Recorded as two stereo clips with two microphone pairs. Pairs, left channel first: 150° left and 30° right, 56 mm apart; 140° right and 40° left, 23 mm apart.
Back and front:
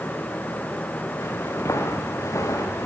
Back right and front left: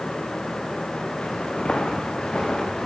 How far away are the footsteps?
About 4.5 m.